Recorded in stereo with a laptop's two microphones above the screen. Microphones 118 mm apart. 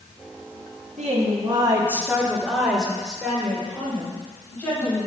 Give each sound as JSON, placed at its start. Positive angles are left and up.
{"t": 1.0, "sound": "a woman speaking", "side_deg": -70, "distance_m": 1.2}